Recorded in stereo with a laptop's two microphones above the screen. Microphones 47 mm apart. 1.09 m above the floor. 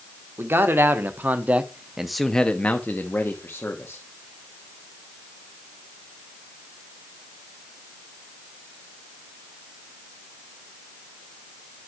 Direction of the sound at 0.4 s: 60° right (ahead or behind).